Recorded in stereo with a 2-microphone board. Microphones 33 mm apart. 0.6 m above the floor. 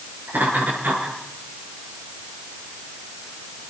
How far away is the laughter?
About 7.5 m.